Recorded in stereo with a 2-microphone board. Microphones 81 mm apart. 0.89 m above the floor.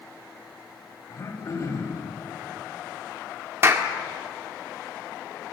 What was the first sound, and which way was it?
Throat clearing, 45° left (ahead or behind).